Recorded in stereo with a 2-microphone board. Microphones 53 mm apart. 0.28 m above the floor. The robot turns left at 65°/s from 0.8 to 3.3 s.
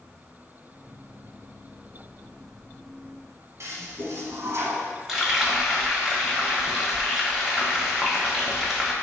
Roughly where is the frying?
Centre.